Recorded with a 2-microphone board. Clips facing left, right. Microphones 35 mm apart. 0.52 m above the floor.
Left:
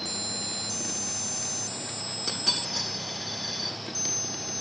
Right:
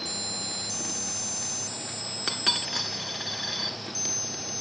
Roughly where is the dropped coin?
Right.